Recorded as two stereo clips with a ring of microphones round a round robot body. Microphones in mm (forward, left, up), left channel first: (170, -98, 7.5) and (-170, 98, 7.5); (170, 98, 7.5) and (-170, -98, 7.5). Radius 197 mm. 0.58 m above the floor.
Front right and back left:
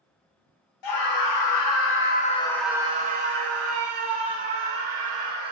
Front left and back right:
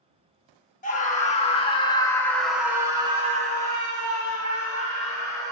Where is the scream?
40° right, 1.2 m; by 5.5 s 145° left, 1.7 m.